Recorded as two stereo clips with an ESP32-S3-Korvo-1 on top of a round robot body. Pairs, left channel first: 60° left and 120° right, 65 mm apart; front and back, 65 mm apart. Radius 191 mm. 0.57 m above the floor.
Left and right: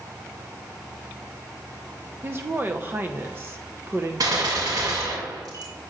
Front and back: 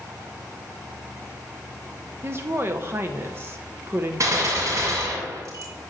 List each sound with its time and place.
2.2 s a woman speaking: 150° right, 1.1 m
4.2 s a gunshot: 140° right, 1.9 m